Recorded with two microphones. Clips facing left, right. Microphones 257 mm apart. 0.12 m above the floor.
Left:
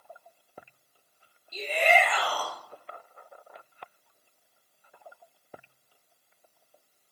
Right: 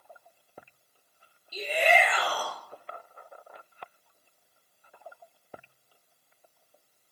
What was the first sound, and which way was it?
A shout, 10° right (ahead or behind).